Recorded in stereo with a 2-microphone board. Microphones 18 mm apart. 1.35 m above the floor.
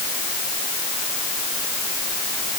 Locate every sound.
Only background noise.